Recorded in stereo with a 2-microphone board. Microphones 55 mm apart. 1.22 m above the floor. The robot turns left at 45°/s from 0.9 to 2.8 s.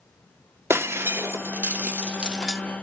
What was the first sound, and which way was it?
Breaking glass, 50° right (ahead or behind).